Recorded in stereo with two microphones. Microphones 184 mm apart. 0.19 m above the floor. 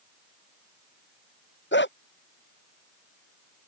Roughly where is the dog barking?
Left.